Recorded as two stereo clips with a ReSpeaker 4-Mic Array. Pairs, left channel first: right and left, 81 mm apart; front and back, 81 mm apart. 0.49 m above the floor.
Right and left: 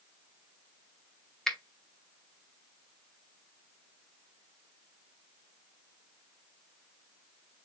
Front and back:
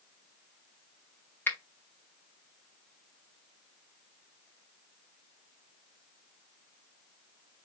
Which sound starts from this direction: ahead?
A finger snap, at 1.5 s.